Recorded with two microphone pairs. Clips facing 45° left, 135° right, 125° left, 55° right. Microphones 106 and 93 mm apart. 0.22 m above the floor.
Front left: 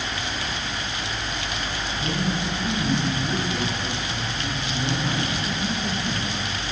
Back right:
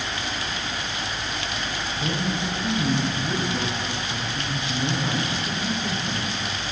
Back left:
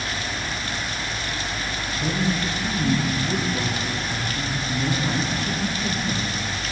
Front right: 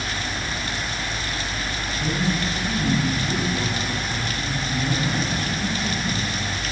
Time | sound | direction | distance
2.0 | a woman speaking | 170° left | 6.5 m